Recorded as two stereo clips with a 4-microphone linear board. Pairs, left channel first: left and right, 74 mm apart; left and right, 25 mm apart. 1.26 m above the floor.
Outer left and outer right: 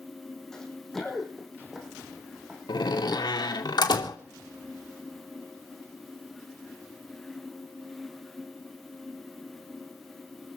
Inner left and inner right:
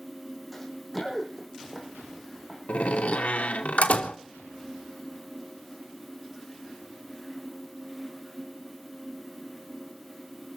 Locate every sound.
0.5 s running footsteps: 10° left (ahead or behind), 4.5 m; by 3.3 s 20° right (ahead or behind), 5.5 m
2.7 s a door slam: 80° left, 2.5 m